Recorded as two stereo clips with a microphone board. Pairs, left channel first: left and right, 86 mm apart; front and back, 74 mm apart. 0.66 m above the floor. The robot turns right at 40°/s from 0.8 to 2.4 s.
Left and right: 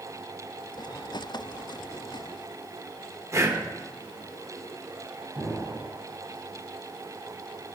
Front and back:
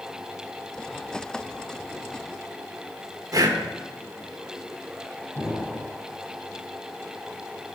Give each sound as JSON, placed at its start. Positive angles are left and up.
{"t": 3.3, "sound": "breathing", "azimuth_deg": -145, "distance_m": 1.0}
{"t": 5.3, "sound": "an explosion", "azimuth_deg": 10, "distance_m": 3.5}